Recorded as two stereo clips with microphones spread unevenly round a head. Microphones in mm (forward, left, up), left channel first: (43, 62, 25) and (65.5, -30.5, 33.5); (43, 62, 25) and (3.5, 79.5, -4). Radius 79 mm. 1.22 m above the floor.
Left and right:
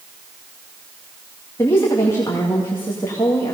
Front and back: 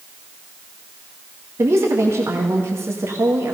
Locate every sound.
1.6 s a woman speaking: 175° left, 1.6 m